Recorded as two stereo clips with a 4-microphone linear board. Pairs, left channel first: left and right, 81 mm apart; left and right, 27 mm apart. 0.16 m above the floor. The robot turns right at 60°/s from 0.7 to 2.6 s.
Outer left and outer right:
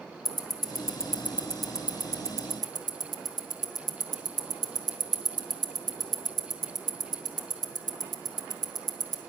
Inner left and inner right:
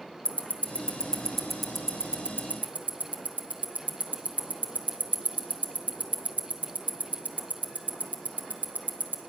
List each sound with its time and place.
0.2 s ticking: 55° left (ahead or behind), 0.9 m; by 9.2 s 55° right (ahead or behind), 0.9 m